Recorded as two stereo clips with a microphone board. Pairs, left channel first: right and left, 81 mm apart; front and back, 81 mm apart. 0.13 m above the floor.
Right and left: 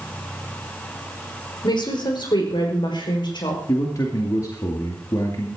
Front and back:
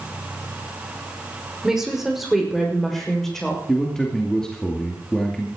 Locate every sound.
1.6 s a woman speaking: 95° right, 5.5 m; by 3.6 s 85° right, 6.5 m
3.7 s a man speaking: 80° right, 2 m